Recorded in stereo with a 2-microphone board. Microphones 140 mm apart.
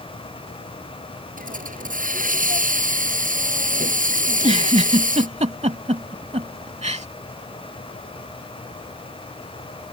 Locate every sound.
1.4 s a hiss: 75° right (ahead or behind)
4.3 s a giggle: 55° right (ahead or behind)